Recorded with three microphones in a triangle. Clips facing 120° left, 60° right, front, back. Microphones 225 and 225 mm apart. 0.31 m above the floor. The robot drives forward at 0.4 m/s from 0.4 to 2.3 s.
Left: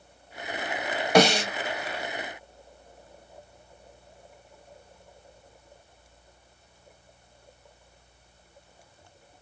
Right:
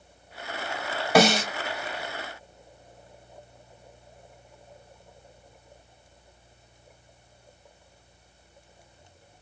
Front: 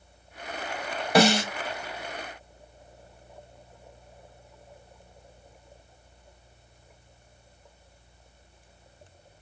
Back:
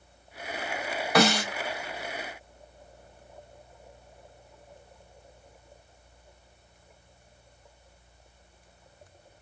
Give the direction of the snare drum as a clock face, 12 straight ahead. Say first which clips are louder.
Even, front 3 dB; 11 o'clock.